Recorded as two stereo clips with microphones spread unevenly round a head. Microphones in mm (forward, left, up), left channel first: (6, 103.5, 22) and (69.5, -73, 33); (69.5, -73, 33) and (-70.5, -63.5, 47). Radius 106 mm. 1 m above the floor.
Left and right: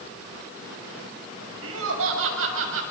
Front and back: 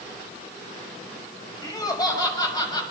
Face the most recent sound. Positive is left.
turn(degrees=-65)